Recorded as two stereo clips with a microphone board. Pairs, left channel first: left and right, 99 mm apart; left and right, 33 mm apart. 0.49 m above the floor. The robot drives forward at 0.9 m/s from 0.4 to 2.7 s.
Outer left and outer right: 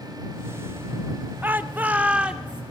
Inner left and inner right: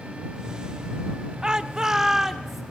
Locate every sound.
1.4 s a shout: 20° right (ahead or behind), 0.7 m; by 2.6 s 10° right (ahead or behind), 1.2 m